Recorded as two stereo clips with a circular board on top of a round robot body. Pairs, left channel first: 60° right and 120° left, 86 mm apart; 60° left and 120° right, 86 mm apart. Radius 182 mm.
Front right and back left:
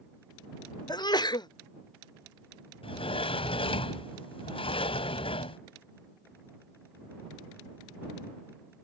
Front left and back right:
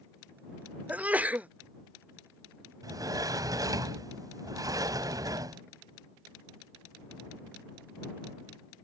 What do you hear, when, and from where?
0.9 s a sneeze: 50° right
2.8 s a sliding door: 70° right